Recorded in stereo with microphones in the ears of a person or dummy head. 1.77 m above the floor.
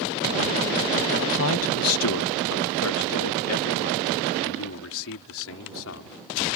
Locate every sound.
1.2 s a man speaking: 65° left (ahead or behind)